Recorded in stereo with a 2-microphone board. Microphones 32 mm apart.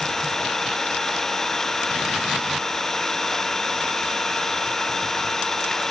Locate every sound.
0.0 s an engine running: 15° left (ahead or behind)